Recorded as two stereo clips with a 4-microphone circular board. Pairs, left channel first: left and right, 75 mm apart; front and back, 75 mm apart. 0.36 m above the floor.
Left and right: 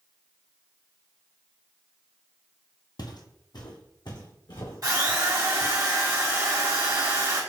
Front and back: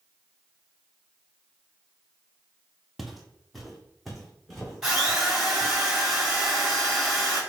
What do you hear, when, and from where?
3.0 s footsteps: 90° left, 0.7 m; by 5.7 s 85° left, 2.5 m
4.8 s a drill: 100° right, 2 m